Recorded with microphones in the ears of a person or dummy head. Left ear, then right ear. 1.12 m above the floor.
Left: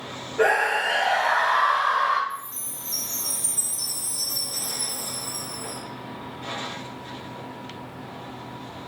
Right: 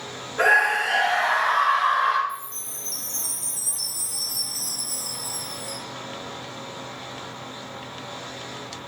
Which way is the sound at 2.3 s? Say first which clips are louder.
Right 1 dB; 60° right (ahead or behind).